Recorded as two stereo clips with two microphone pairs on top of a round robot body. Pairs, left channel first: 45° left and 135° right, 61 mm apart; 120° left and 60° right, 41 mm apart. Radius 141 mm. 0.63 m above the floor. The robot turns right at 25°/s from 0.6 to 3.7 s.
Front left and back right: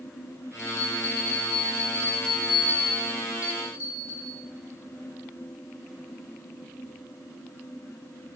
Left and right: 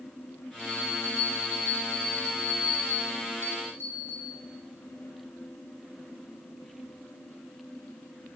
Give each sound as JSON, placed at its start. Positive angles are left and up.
{"t": 0.6, "sound": "a bell", "azimuth_deg": 70, "distance_m": 2.0}